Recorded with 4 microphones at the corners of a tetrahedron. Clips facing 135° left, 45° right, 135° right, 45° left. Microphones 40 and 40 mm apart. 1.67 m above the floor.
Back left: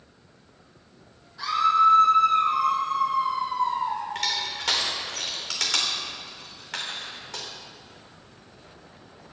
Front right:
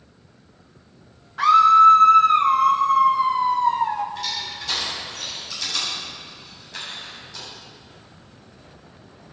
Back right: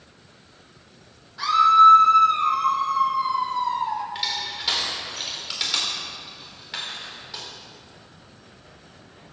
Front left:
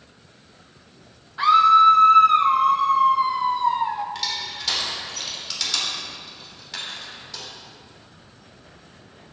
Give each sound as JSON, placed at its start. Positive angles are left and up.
{"t": 1.4, "sound": "a scream", "azimuth_deg": -15, "distance_m": 1.6}
{"t": 4.2, "sound": "crushing", "azimuth_deg": 150, "distance_m": 3.5}